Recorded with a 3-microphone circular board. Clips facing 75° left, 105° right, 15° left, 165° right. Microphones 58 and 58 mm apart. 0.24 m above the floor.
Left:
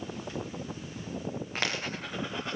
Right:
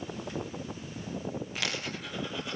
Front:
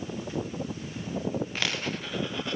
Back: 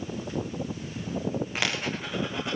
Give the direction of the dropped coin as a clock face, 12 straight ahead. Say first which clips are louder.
Left 2 dB, back 2 dB; 8 o'clock.